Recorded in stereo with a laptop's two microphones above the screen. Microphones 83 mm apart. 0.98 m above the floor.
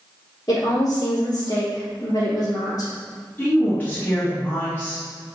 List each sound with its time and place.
0.5 s a woman speaking: 45° left (ahead or behind), 1.9 m
3.4 s a woman speaking: 20° left (ahead or behind), 2.0 m